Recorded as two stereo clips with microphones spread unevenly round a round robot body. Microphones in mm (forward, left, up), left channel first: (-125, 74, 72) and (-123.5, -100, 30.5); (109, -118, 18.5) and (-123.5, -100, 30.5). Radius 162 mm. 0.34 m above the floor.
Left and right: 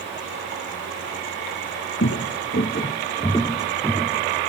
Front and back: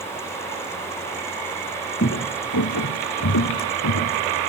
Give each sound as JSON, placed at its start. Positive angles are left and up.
{"t": 2.0, "sound": "footsteps", "azimuth_deg": 50, "distance_m": 1.3}